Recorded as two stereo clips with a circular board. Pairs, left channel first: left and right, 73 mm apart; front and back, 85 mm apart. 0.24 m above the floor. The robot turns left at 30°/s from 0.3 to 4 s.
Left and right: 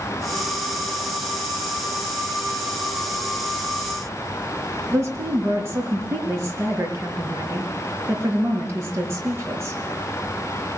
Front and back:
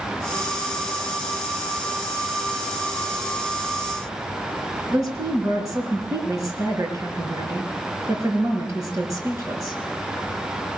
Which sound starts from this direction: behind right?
A woman speaking, at 4.9 s.